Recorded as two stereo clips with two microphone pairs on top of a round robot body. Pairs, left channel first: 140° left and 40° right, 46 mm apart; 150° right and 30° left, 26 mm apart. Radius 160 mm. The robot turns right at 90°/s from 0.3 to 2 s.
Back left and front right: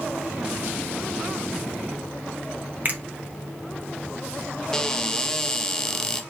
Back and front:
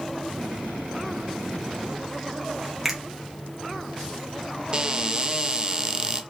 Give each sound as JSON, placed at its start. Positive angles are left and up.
{"t": 2.9, "sound": "a finger snap", "azimuth_deg": -30, "distance_m": 1.1}
{"t": 4.7, "sound": "a cupboard door", "azimuth_deg": 65, "distance_m": 0.6}